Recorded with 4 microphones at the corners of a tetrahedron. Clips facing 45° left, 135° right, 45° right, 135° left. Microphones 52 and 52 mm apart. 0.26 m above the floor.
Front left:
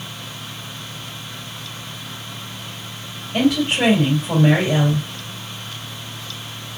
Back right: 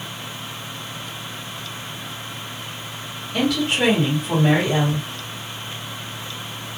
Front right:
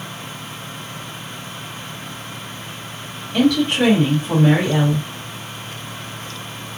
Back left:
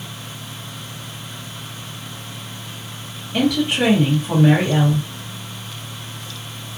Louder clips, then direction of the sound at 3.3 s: Front left 3 dB, front right 2 dB; 60° left.